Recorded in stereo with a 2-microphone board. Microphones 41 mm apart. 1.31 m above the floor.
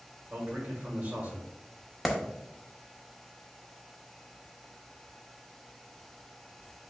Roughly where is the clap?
Centre.